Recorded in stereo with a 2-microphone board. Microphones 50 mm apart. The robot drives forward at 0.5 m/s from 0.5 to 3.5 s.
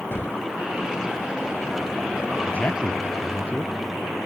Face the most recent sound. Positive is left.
turn(degrees=30)  # may be behind; listen again after turning